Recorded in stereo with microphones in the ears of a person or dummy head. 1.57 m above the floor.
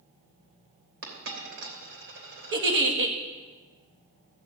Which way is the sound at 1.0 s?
70° right (ahead or behind).